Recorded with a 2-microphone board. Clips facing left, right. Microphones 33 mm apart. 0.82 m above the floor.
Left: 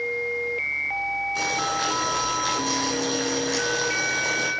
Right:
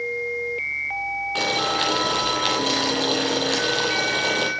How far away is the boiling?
About 7.5 m.